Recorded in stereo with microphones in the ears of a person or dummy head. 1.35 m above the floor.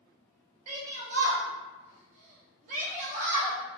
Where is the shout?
45° right (ahead or behind), 1.1 m.